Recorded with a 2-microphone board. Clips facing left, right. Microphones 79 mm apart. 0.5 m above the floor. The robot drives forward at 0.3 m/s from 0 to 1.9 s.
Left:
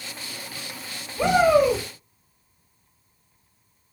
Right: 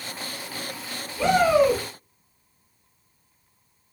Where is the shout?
15° left (ahead or behind), 1.4 m.